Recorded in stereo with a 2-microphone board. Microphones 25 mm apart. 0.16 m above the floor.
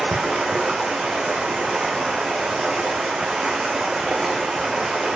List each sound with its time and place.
0.0 s running water: 35° right (ahead or behind), 1.4 m